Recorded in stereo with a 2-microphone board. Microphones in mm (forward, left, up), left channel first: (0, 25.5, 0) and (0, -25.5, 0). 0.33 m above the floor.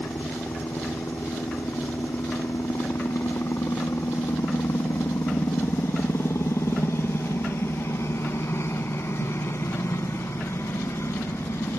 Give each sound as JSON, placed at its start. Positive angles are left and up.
{"t": 0.0, "sound": "a helicopter", "side_deg": 60}